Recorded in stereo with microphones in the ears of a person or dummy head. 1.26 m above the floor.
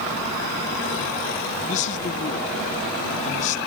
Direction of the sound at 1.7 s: 40° left (ahead or behind).